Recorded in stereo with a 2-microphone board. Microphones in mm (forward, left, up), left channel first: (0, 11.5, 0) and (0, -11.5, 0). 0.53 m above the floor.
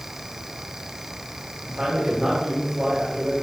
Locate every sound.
1.6 s a man speaking: 45° right (ahead or behind), 3 m